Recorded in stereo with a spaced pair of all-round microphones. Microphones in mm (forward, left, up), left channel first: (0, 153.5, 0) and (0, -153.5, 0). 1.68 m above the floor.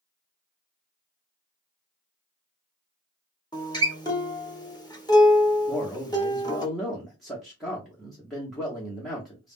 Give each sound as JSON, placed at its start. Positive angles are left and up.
{"t": 3.5, "sound": "a guitar", "side_deg": 15, "distance_m": 0.6}
{"t": 5.7, "sound": "a man speaking", "side_deg": 0, "distance_m": 0.8}